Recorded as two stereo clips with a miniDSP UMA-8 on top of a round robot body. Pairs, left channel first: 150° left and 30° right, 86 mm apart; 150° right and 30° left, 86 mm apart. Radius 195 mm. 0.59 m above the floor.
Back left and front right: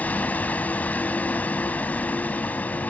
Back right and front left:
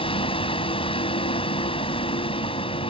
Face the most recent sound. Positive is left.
turn(degrees=-135)